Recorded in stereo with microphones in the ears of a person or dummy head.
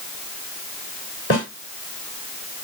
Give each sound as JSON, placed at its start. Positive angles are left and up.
{"t": 1.3, "sound": "a snare drum", "side_deg": 50, "distance_m": 3.0}